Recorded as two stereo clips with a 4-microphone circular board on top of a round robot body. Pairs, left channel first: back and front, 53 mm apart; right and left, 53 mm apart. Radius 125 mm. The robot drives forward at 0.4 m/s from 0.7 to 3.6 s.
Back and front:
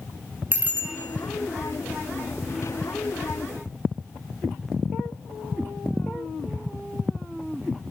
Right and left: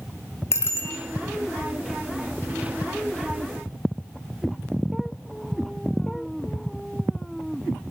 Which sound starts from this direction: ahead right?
A bicycle bell, at 0.5 s.